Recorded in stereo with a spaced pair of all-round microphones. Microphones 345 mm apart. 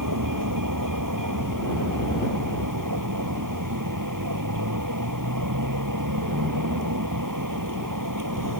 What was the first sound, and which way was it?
A vehicle, 75° right (ahead or behind).